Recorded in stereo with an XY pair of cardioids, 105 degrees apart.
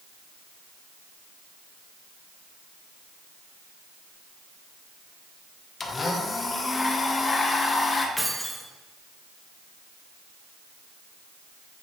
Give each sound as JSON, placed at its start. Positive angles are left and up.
{"t": 5.8, "sound": "a blender", "azimuth_deg": 30, "distance_m": 1.1}
{"t": 8.2, "sound": "keys jangling", "azimuth_deg": 0, "distance_m": 1.3}